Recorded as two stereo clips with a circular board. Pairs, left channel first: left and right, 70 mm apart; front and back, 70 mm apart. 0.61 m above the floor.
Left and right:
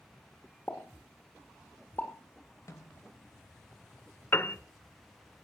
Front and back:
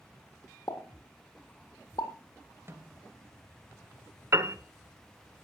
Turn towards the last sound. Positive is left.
turn(degrees=140)